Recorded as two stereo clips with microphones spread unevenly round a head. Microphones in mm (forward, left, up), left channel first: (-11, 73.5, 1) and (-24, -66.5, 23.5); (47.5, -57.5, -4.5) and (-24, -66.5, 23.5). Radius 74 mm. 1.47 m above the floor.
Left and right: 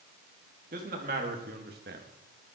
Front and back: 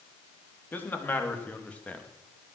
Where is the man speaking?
55° right, 3 m; by 2.1 s 70° right, 1.9 m.